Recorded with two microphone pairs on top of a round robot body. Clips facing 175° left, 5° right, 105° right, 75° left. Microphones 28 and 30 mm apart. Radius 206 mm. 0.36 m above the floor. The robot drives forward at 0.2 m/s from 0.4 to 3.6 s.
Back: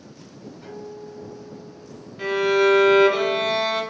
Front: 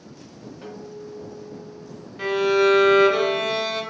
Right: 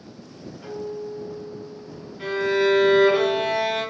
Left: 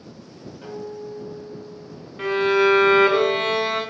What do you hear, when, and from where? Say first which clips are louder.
0.6 s a guitar: even, right 2 dB; 25° left, 0.8 m; by 2.1 s 40° left, 0.6 m
2.2 s a violin: even, left 3 dB; 75° left, 0.7 m; by 3.8 s 105° left, 0.7 m